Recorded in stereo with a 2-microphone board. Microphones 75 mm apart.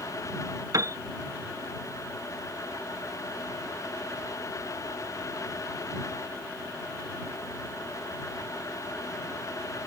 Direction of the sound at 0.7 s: 55° right (ahead or behind).